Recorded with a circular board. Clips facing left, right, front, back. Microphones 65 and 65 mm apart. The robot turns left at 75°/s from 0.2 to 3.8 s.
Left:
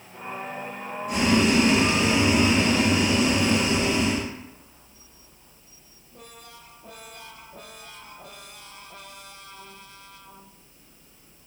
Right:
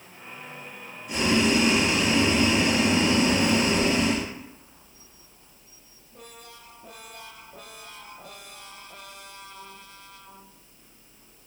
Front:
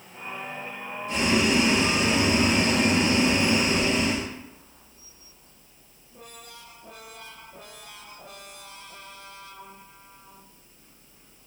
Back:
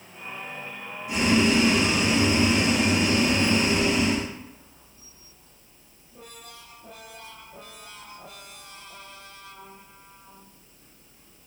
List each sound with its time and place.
1.1 s boiling: 110° left, 1.1 m; by 4.3 s 95° right, 1.1 m